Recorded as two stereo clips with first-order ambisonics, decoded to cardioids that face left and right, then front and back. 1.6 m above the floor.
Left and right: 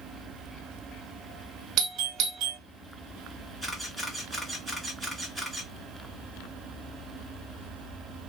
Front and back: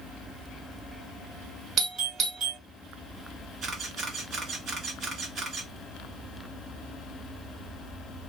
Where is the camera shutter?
170° left, 1.1 m.